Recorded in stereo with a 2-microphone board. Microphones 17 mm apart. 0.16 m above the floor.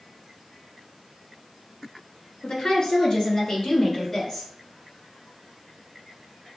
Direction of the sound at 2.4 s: 50° left (ahead or behind).